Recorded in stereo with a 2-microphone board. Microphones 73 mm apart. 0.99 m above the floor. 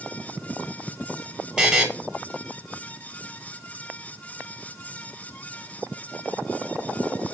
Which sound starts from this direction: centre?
A buzzer, at 1.6 s.